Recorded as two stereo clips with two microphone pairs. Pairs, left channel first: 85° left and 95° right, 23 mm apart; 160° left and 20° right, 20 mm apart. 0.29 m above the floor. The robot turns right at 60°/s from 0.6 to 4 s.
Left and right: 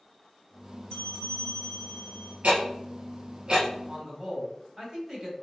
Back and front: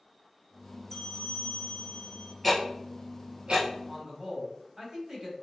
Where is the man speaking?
55° right, 1.6 m; by 5.3 s 50° right, 1.6 m.